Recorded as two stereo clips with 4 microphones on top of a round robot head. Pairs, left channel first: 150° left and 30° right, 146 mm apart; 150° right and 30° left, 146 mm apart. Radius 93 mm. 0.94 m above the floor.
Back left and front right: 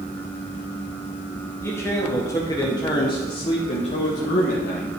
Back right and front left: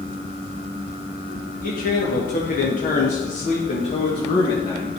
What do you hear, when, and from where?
1.6 s a man speaking: 140° right, 2 m; by 5.0 s 145° left, 1.6 m